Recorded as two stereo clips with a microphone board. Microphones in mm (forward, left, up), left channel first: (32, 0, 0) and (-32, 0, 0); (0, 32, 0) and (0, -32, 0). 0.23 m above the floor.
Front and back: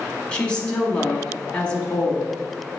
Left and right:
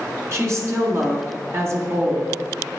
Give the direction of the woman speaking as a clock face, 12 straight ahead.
2 o'clock.